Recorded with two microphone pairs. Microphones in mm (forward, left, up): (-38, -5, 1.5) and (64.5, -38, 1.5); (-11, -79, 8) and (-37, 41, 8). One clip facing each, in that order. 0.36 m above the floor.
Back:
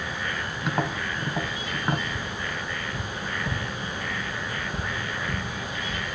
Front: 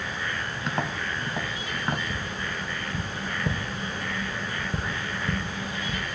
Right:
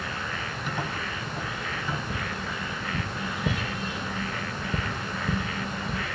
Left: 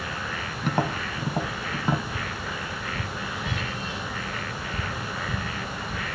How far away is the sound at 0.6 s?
About 1.1 m.